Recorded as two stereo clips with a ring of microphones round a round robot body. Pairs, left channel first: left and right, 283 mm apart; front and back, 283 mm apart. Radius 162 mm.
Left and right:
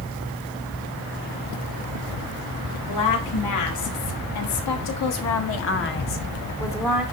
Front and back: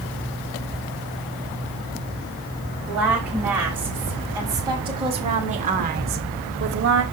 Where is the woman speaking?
95° left, 3 m; by 7.0 s 175° right, 1.1 m.